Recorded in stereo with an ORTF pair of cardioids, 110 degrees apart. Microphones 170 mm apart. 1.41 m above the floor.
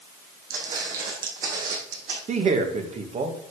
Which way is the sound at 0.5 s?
65° right.